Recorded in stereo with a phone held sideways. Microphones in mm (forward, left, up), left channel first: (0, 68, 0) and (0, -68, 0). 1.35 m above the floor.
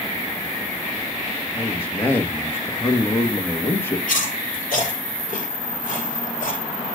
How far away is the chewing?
About 6.5 m.